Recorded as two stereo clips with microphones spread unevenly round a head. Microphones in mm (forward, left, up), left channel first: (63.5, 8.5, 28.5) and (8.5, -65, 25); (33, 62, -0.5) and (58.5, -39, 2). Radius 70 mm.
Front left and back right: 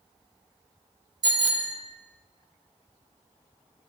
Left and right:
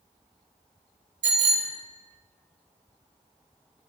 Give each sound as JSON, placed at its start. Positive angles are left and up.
{"t": 1.2, "sound": "a bicycle bell", "azimuth_deg": -90, "distance_m": 3.0}